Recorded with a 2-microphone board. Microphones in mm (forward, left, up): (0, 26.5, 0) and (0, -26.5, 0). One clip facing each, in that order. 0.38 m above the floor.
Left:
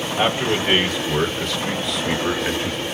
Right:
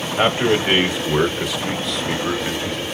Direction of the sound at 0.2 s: 35° right (ahead or behind).